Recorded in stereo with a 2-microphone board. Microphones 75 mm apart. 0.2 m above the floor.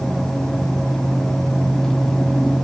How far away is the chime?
I don't hear a chime.